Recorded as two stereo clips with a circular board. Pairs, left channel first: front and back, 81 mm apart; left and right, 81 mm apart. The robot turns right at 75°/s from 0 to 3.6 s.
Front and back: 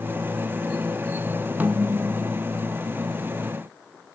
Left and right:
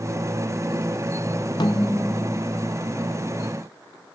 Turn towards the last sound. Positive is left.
turn(degrees=-100)